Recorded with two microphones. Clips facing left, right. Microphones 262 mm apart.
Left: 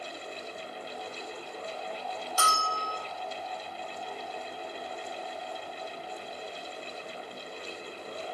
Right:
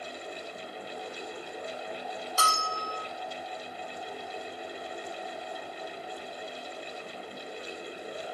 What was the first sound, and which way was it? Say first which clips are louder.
A bell: left 1 dB; 15° left (ahead or behind).